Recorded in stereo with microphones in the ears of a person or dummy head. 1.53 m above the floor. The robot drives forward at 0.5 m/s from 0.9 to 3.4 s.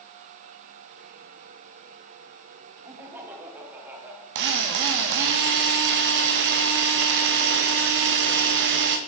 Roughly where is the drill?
Right.